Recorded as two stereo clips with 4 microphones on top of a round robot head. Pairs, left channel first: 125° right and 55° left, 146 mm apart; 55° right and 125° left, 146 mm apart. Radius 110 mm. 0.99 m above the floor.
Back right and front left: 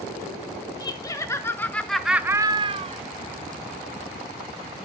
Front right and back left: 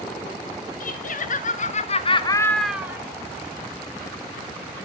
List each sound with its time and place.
0.8 s laughter: 65° right, 2 m; by 3.0 s 65° left, 1.1 m